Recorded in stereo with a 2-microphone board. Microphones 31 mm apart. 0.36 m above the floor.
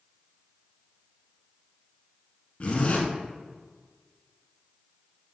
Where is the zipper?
40° left (ahead or behind), 1.0 m.